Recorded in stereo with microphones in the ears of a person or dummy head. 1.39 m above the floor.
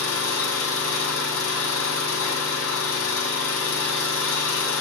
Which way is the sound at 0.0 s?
75° left (ahead or behind).